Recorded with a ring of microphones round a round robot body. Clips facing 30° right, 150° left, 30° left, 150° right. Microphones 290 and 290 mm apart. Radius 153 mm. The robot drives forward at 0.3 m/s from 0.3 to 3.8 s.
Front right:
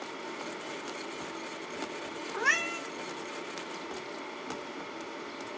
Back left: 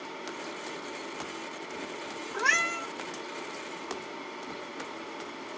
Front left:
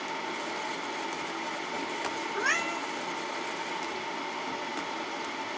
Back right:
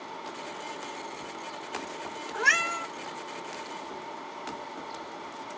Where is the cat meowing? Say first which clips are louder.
Back left 1 dB, front left 1 dB; 120° right, 1.5 m; by 2.9 s 125° right, 1.6 m.